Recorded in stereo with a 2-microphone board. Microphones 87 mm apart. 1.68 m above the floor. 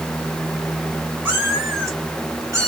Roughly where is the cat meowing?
Right.